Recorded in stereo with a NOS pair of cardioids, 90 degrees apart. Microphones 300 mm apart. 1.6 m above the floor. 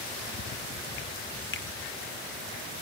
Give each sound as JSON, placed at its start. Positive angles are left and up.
{"t": 1.5, "sound": "a finger snap", "azimuth_deg": 40, "distance_m": 0.8}